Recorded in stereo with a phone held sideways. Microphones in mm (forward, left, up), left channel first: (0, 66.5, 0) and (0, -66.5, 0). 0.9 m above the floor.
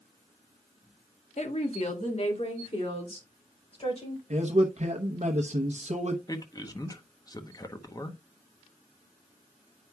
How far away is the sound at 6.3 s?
About 0.7 m.